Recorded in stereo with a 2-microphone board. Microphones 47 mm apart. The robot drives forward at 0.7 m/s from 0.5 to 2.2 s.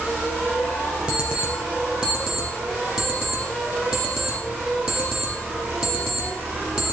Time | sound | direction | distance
1.1 | an alarm clock | 15° right (ahead or behind) | 2.5 m